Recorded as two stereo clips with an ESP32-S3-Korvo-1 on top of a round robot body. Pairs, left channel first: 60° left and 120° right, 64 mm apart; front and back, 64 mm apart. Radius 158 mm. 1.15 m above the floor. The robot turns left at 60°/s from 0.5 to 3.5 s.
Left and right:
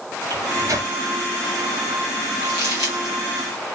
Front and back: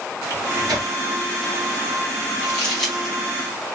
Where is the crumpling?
50° left, 0.9 m; by 3.1 s 5° left, 0.9 m.